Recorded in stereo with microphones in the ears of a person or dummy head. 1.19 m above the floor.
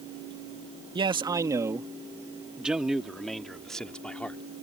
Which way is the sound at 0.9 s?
25° right (ahead or behind).